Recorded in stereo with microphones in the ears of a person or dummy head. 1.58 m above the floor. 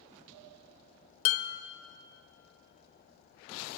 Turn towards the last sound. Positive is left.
turn(degrees=50)  # may be behind; listen again after turning